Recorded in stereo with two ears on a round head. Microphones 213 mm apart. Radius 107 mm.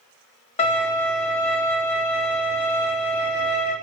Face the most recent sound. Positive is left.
turn(degrees=25)  # may be behind; listen again after turning